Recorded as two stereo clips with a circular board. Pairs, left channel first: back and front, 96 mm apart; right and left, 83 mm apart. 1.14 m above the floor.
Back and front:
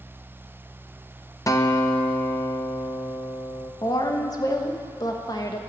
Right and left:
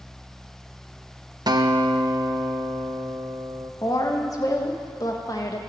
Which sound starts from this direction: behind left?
A guitar, at 1.5 s.